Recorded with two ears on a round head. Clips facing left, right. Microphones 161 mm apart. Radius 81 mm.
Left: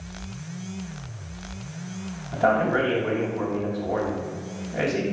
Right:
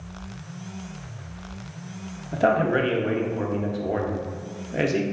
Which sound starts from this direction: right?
A man speaking, at 2.3 s.